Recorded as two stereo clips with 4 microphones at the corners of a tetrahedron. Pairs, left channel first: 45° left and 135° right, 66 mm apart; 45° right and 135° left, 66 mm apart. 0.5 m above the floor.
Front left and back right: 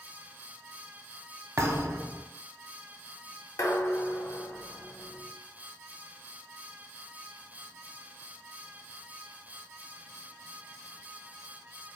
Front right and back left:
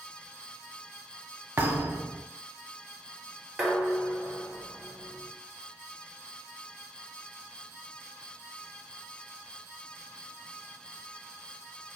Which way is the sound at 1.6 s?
170° right.